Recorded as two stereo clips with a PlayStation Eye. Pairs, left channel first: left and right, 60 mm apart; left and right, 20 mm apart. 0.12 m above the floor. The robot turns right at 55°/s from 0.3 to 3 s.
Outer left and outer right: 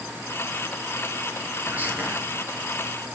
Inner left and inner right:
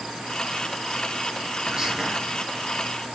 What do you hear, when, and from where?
1.7 s whispering: 30° right (ahead or behind), 1.6 m